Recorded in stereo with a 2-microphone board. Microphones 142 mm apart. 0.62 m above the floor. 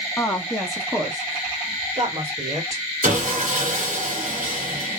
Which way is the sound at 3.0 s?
75° right (ahead or behind).